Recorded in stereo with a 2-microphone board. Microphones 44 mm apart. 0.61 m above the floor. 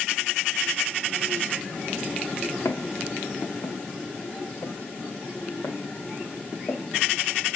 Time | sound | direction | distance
2.6 | footsteps | 80° left | 3.5 m